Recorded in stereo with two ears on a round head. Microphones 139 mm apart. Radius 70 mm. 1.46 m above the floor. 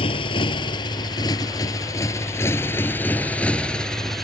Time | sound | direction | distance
0.0 | a motorcycle | 35° left (ahead or behind) | ?